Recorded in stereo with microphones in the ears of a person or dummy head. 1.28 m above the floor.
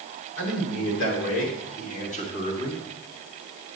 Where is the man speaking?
85° left, 4 m; by 2.8 s 20° left (ahead or behind), 2.5 m.